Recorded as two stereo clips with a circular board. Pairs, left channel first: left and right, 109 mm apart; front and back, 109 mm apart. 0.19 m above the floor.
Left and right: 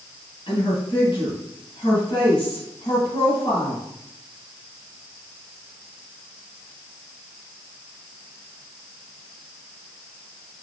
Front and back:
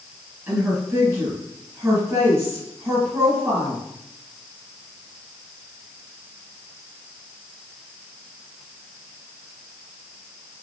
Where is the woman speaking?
110° left, 1.9 m.